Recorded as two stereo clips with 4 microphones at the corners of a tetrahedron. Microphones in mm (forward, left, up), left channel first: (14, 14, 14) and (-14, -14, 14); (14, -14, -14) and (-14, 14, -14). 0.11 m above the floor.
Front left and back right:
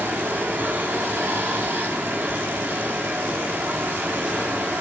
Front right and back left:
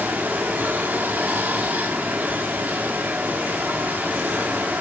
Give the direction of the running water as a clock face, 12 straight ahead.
6 o'clock.